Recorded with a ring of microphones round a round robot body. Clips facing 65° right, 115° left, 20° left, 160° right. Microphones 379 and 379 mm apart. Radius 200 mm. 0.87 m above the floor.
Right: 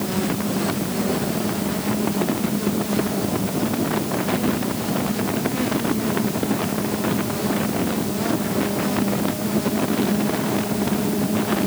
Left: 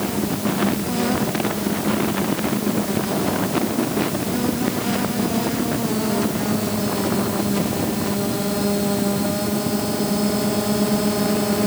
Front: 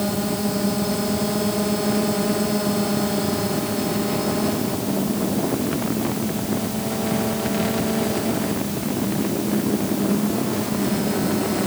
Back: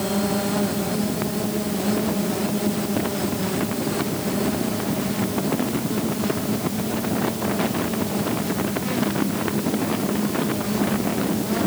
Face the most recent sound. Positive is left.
No sound to turn to.